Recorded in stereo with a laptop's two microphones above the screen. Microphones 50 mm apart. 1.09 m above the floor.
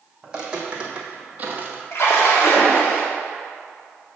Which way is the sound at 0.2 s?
10° right (ahead or behind).